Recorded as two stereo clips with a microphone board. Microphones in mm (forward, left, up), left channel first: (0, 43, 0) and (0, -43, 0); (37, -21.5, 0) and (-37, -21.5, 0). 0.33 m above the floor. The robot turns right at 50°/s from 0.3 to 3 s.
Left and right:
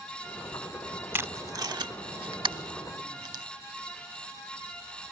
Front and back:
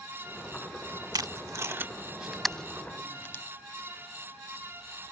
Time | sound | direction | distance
1.1 | tape being pulled | 155° right | ?